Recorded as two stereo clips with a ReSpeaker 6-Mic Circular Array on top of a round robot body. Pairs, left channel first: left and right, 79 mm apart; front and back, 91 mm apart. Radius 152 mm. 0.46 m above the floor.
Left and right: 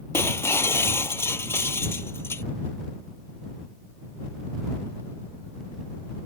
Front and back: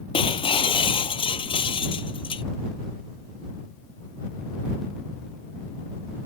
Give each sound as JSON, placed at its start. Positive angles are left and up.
{"t": 0.1, "sound": "breaking glass", "azimuth_deg": 30}